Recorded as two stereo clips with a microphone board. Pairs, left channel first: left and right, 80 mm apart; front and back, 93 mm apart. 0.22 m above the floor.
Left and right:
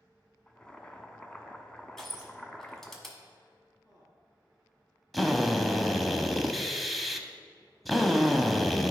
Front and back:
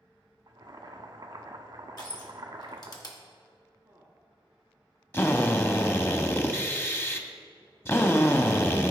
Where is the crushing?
5° left, 1.4 m.